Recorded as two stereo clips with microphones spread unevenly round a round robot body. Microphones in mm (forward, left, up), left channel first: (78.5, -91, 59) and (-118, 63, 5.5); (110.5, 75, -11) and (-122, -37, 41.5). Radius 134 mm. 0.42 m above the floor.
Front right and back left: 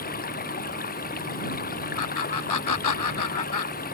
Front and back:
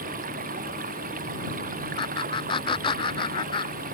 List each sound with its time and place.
0.0 s running water: 95° right
2.0 s laughter: 50° right